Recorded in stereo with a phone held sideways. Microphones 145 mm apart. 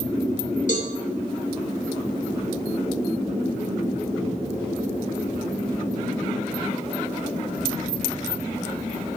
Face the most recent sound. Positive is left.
turn(degrees=60)  # may be behind; listen again after turning